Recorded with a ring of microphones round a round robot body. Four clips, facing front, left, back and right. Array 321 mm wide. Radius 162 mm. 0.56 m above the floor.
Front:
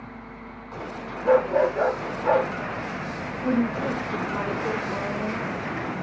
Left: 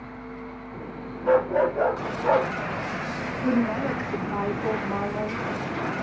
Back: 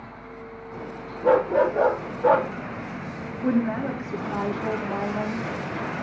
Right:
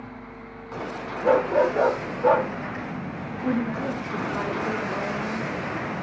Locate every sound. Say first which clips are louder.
1.2 s a dog barking: right 1 dB, even; 140° right, 7 m
3.4 s a woman speaking: left 2 dB, back 1 dB; 145° left, 4 m